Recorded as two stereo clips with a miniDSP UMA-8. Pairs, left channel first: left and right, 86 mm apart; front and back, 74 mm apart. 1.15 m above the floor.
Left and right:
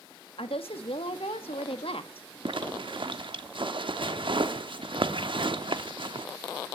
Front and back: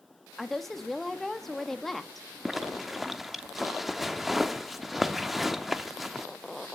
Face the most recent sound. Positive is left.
turn(degrees=-95)